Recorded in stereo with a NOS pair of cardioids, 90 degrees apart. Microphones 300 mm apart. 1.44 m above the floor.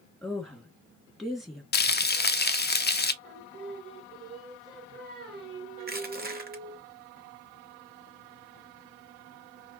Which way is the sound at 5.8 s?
35° right.